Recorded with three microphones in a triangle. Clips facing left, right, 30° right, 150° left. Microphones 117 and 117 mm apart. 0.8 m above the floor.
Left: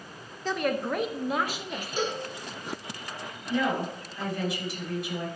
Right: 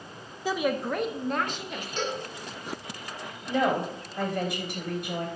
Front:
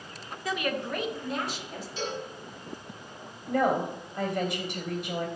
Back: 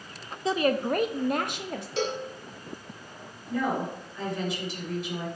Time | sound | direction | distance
0.5 | a woman speaking | 160° right | 0.6 m
2.0 | a cowbell | 170° left | 1.5 m
3.5 | a woman speaking | 65° right | 3 m